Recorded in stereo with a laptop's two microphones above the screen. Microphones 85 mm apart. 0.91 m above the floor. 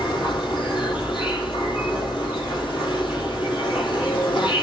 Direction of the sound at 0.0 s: 70° left (ahead or behind).